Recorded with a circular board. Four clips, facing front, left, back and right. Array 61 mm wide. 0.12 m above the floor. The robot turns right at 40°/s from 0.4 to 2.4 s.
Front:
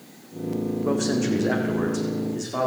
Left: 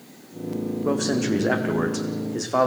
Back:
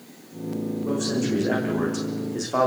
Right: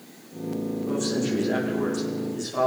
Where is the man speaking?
60° left, 5.5 m; by 2.7 s 120° left, 5.5 m.